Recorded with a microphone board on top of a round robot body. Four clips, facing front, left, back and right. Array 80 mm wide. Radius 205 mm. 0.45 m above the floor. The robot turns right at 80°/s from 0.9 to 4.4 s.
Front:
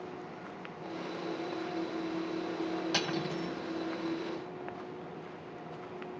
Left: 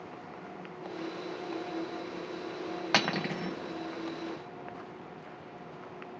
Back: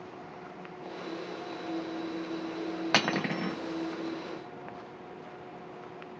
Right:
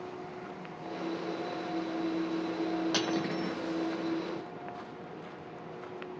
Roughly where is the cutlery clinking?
Behind left.